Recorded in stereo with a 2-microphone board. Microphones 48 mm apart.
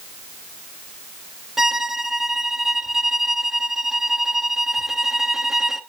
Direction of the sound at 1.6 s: 10° right (ahead or behind).